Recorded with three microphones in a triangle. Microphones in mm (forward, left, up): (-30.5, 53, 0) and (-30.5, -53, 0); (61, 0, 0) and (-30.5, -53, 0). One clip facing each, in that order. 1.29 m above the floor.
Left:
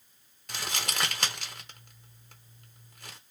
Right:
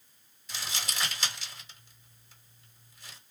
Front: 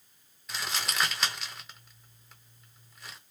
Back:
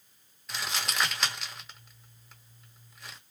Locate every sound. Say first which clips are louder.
0.5 s crumpling: left 4 dB, even; 120° left, 0.9 m